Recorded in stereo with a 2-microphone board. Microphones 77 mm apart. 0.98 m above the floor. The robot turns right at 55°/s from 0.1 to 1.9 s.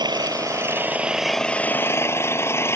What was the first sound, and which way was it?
An engine running, 65° right.